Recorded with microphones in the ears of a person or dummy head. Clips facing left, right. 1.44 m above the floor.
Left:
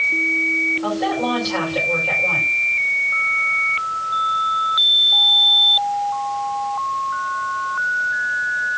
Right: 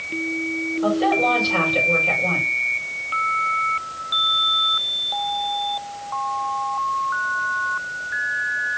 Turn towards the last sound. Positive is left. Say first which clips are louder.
# right 2 dB
turn(degrees=-55)  # may be behind; listen again after turning